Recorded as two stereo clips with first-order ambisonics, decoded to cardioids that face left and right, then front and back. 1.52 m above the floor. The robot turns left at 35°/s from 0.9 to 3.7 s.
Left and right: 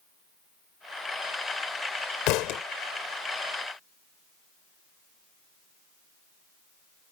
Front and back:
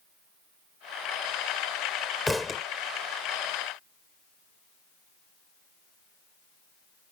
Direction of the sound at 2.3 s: 85° left.